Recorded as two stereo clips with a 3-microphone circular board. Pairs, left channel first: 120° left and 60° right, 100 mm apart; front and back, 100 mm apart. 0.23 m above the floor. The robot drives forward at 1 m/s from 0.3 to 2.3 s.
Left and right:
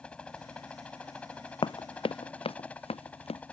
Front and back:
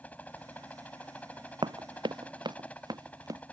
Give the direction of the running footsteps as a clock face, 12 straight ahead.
7 o'clock.